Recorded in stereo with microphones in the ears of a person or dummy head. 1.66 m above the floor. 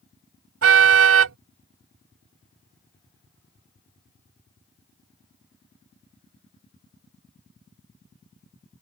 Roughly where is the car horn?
Right.